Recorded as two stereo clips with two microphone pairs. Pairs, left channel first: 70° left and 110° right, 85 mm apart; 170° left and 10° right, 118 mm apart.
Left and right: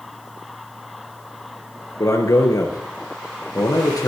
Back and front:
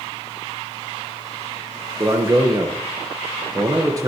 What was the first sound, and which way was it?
A man speaking, 40° left.